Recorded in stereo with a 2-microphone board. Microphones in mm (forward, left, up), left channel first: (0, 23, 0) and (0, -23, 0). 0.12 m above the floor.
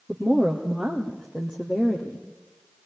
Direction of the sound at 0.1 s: 5° left (ahead or behind).